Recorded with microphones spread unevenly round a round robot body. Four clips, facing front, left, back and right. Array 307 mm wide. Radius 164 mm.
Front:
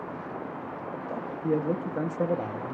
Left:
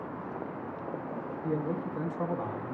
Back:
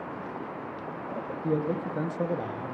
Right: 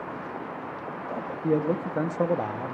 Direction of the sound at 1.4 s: 65° right.